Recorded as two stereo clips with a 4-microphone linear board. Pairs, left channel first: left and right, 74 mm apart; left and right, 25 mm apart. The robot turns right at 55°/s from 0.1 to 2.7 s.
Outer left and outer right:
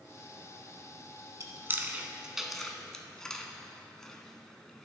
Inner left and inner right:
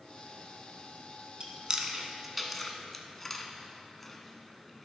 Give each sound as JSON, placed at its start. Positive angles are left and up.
{"t": 1.4, "sound": "chewing", "side_deg": -40, "distance_m": 0.7}